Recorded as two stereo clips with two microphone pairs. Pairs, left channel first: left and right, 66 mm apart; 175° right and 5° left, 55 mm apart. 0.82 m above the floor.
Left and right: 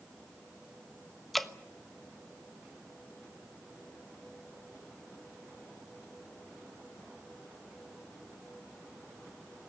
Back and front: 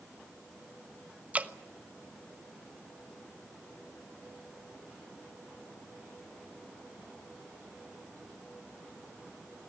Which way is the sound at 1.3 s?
5° left.